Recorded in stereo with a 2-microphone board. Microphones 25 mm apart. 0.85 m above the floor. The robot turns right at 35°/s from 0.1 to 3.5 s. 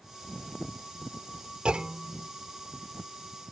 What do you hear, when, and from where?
1.6 s a clunk: 45° right (ahead or behind); by 2.3 s 20° right (ahead or behind)